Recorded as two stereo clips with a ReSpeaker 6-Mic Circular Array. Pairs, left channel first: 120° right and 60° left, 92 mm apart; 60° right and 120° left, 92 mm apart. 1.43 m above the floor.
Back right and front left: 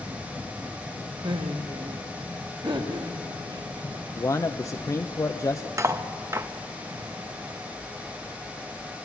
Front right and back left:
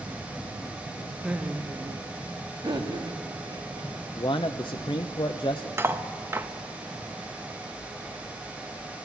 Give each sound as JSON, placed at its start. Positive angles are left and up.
{"t": 1.2, "sound": "laughter", "azimuth_deg": 35, "distance_m": 1.1}
{"t": 4.2, "sound": "a man speaking", "azimuth_deg": -70, "distance_m": 0.6}
{"t": 5.8, "sound": "cutlery clinking", "azimuth_deg": 80, "distance_m": 0.7}